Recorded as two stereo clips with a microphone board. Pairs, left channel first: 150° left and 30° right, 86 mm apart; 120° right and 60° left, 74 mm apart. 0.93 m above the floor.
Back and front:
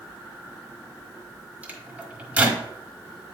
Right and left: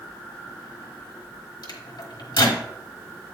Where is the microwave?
105° right, 1.3 m.